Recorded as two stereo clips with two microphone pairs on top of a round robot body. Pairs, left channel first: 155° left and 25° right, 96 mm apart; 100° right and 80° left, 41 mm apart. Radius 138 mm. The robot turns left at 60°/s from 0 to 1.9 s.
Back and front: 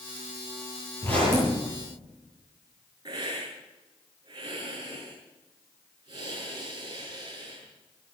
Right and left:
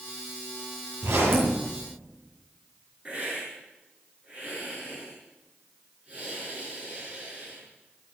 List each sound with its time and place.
1.0 s a zipper: 85° left, 9 m; by 1.6 s 50° left, 9 m
3.0 s a hiss: 25° left, 7 m